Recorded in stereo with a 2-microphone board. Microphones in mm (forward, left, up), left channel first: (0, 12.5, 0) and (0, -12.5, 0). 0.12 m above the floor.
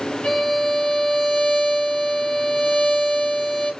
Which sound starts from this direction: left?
A violin, at 0.2 s.